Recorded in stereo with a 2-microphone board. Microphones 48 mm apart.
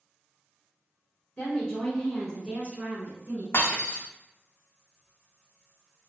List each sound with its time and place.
1.4 s a woman speaking: 20° left (ahead or behind), 1.2 m; by 3.4 s 40° right (ahead or behind), 1.3 m
3.5 s breaking glass: 60° left (ahead or behind), 0.7 m